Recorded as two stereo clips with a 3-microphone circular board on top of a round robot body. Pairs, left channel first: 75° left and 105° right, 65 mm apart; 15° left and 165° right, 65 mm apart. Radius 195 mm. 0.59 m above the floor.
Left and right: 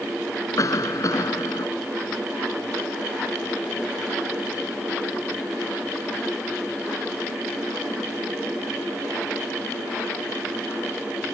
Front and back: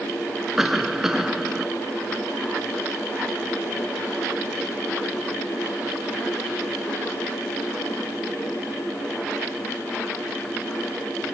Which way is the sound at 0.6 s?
110° left.